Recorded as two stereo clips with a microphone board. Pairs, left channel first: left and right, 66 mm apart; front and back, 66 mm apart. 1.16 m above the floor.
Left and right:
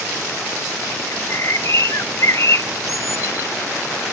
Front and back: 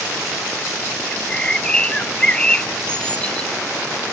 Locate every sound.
1.1 s a bird: 70° left, 0.6 m